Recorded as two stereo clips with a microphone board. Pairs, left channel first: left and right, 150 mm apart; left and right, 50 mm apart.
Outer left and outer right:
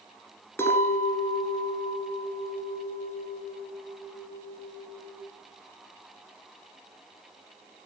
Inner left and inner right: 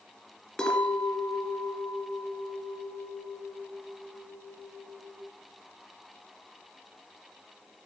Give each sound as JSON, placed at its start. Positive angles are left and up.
{"t": 0.6, "sound": "a clink", "side_deg": 15, "distance_m": 1.3}